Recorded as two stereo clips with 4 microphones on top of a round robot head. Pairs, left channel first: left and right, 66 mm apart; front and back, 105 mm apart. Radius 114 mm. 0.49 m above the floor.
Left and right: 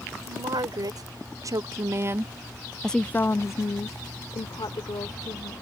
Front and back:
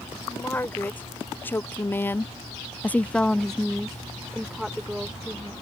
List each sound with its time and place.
0.2 s a woman speaking: 75° right; by 5.5 s 95° left